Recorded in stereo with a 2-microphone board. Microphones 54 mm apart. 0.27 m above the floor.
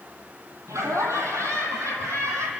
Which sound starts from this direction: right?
Laughter, at 0.7 s.